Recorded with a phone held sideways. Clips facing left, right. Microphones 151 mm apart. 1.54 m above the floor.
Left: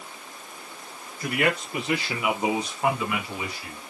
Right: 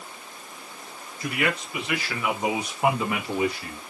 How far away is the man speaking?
About 2.5 m.